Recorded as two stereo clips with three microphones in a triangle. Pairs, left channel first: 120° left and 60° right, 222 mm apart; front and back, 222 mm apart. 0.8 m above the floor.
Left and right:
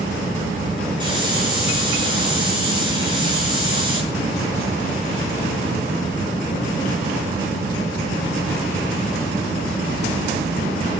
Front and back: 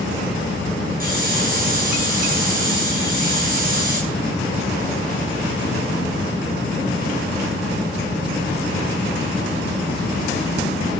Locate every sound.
1.0 s a hiss: 130° right, 9.5 m